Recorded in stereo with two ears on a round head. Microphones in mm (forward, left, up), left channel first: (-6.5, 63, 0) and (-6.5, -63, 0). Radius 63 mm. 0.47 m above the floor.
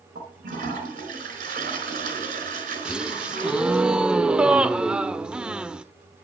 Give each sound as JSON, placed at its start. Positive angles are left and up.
{"t": 0.1, "sound": "a toilet flushing", "side_deg": -70, "distance_m": 4.5}
{"t": 2.9, "sound": "a gasp", "side_deg": -10, "distance_m": 0.7}